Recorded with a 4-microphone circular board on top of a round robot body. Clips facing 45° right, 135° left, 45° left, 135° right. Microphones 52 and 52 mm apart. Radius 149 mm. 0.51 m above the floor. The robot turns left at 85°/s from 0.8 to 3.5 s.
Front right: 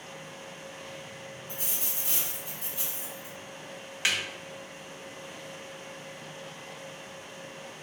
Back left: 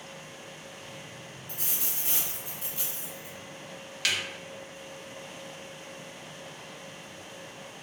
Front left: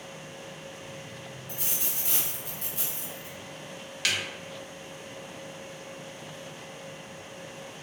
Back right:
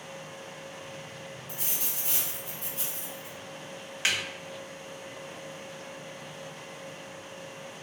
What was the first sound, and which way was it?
A dropped coin, 140° left.